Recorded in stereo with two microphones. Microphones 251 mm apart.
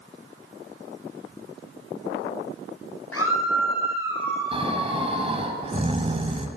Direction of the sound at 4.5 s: 25° right (ahead or behind).